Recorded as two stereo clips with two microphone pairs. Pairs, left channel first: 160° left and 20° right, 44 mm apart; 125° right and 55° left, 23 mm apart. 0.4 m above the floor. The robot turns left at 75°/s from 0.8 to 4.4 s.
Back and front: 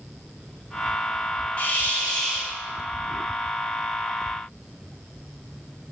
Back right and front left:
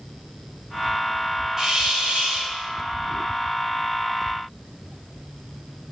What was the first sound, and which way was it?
A hiss, 130° left.